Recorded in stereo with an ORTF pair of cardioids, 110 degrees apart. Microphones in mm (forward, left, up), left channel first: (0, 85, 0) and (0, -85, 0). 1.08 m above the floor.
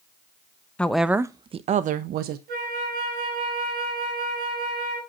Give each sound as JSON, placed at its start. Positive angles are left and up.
{"t": 0.8, "sound": "a woman speaking", "azimuth_deg": 5, "distance_m": 0.8}
{"t": 2.5, "sound": "a flute", "azimuth_deg": -70, "distance_m": 4.5}